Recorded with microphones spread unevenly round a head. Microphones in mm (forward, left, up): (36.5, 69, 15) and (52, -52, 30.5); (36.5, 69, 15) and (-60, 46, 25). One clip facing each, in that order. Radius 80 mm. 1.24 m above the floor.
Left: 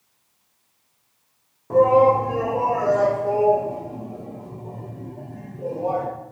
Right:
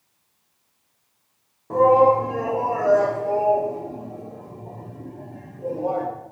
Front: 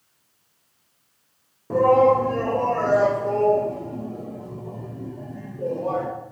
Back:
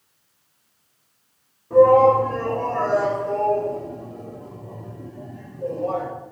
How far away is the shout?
About 1.3 m.